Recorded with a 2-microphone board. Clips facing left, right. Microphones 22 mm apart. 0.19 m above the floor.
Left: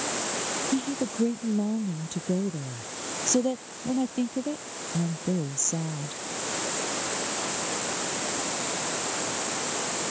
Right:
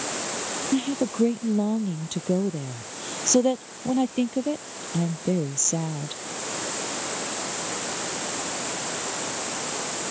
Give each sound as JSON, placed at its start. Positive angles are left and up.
{"t": 0.7, "sound": "a woman speaking", "side_deg": -25}